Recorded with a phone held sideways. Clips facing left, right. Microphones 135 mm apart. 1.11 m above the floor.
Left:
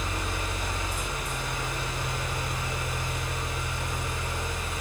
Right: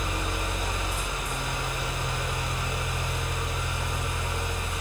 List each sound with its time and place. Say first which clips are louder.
0.0 s a fan: right 2 dB; 20° right (ahead or behind), 2.5 m